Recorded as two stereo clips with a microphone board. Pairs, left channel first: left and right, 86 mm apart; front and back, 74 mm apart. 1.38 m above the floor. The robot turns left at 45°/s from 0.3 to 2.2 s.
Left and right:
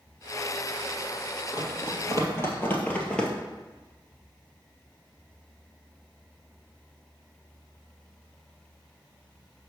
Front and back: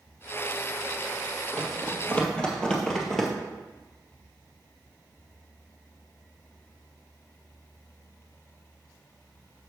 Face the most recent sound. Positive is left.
turn(degrees=70)